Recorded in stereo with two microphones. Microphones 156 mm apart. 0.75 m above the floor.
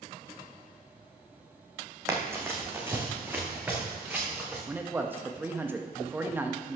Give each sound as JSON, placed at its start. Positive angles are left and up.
{"t": 2.1, "sound": "running footsteps", "side_deg": -20, "distance_m": 2.0}
{"t": 4.7, "sound": "a man speaking", "side_deg": -15, "distance_m": 0.8}